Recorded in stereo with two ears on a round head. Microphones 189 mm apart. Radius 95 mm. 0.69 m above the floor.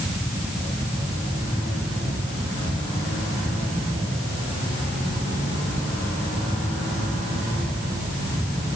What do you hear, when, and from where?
Only background noise.